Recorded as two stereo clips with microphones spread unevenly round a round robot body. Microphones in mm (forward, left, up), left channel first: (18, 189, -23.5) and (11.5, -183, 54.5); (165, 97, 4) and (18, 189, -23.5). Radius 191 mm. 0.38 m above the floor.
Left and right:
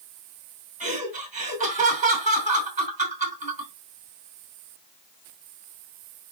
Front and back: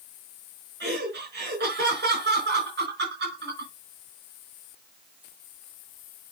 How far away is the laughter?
About 4.5 m.